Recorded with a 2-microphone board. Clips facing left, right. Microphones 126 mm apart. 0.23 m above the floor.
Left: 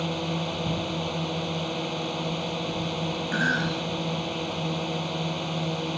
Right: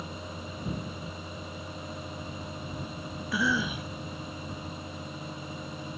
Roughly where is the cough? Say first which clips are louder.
Right 1 dB; centre.